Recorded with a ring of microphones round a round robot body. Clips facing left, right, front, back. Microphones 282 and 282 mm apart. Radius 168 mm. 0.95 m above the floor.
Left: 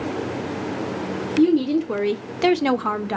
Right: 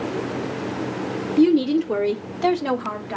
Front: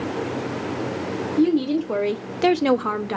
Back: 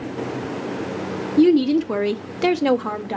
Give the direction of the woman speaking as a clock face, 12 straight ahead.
5 o'clock.